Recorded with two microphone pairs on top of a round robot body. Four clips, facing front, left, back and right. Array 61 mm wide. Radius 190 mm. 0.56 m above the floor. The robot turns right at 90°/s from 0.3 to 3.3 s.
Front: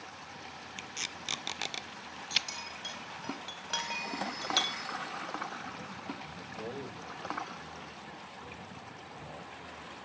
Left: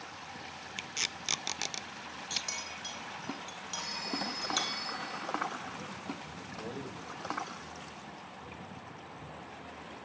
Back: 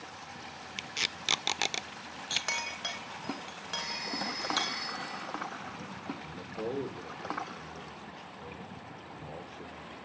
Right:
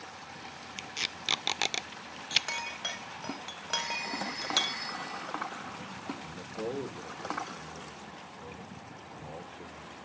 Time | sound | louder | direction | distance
0.8 | tape being pulled | right 1 dB, back 6 dB | 145° left | 0.7 m
2.3 | a clink | right 9 dB, back 4 dB | 175° right | 2.5 m
3.8 | a phone ringing | right 1 dB, even | 125° right | 9 m
6.2 | a man speaking | right 5 dB, back 4 dB | 135° right | 3 m